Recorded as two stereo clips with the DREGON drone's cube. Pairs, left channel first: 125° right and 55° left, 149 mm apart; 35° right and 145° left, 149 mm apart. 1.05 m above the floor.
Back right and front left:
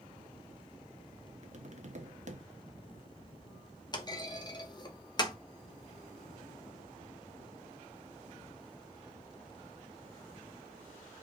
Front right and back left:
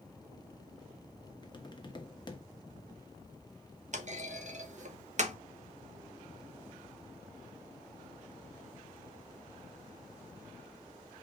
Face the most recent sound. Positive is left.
turn(degrees=175)